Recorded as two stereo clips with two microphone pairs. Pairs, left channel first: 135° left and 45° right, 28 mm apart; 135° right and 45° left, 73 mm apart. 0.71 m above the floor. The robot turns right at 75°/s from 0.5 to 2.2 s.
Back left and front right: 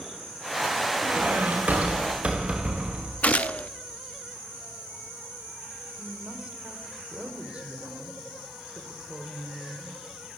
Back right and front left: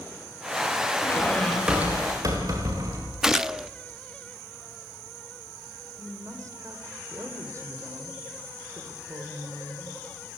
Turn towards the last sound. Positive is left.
turn(degrees=5)